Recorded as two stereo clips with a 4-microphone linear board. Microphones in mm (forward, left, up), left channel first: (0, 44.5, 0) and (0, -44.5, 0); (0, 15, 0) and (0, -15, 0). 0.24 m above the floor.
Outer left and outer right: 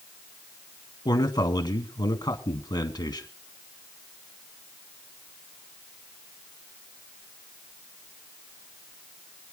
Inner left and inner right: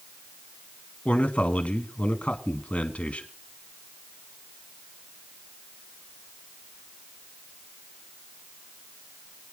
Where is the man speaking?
50° left (ahead or behind), 1.8 m.